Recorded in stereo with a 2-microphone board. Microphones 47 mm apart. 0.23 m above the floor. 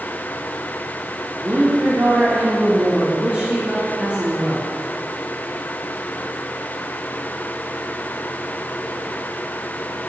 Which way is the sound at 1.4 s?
35° right (ahead or behind).